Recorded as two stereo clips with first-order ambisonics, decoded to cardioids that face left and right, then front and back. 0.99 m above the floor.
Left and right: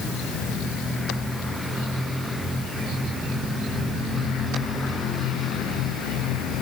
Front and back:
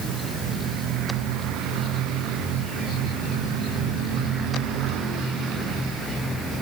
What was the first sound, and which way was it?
Only background noise.